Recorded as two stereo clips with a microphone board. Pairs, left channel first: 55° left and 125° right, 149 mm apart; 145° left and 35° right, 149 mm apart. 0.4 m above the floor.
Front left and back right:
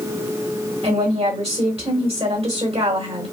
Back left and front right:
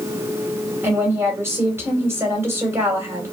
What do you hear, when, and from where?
0.8 s a woman speaking: 100° right, 2 m